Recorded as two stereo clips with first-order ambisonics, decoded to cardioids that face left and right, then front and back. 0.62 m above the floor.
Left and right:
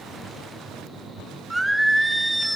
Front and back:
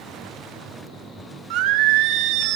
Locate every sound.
1.5 s singing: 175° right, 0.5 m